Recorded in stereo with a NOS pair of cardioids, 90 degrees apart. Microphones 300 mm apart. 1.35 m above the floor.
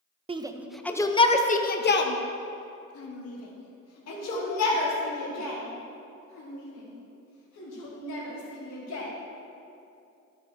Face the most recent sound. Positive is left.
turn(degrees=70)